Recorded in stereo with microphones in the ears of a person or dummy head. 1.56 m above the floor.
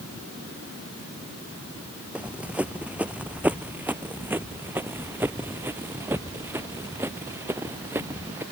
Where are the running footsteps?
5° right (ahead or behind); by 8.4 s 15° right (ahead or behind).